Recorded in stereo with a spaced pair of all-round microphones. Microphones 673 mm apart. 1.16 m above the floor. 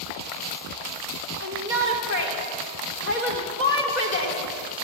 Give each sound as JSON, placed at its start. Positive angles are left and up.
{"t": 1.4, "sound": "a shout", "side_deg": 85, "distance_m": 4.0}